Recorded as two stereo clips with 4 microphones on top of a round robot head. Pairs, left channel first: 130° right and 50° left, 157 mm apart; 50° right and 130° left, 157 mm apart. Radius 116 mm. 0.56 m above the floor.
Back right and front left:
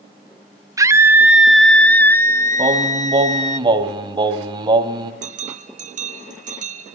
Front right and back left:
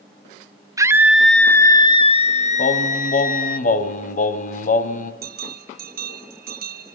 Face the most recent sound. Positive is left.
turn(degrees=95)